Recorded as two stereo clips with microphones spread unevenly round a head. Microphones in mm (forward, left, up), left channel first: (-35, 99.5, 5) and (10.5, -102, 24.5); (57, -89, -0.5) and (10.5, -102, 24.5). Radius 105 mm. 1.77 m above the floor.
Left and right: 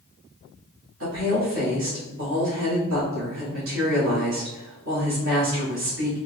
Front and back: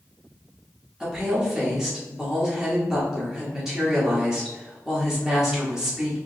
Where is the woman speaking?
95° right, 1.7 m.